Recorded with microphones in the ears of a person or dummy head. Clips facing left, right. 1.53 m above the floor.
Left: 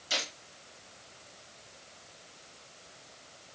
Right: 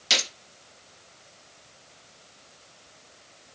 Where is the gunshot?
80° right, 1.7 m.